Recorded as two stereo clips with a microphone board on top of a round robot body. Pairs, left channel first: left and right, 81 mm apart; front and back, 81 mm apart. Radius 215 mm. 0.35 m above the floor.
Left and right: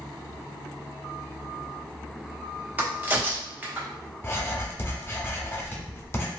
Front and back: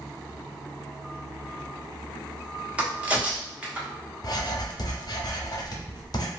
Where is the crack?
125° right, 1.2 m.